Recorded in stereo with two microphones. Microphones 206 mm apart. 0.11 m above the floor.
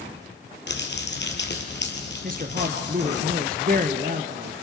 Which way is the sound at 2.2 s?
45° right (ahead or behind).